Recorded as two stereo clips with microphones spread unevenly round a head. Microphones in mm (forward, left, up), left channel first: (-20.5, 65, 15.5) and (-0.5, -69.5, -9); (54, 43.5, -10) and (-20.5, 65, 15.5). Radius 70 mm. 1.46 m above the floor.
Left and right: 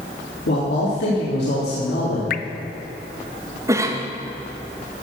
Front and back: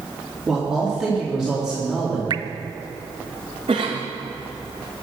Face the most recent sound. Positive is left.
turn(degrees=-150)